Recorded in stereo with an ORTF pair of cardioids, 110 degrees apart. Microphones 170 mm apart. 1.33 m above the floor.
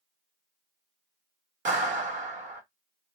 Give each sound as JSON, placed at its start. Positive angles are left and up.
{"t": 1.6, "sound": "a clap", "azimuth_deg": -45, "distance_m": 1.4}